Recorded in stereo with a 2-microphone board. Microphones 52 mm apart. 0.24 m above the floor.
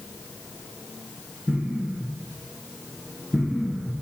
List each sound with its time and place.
1.5 s an explosion: 15° right (ahead or behind), 2.5 m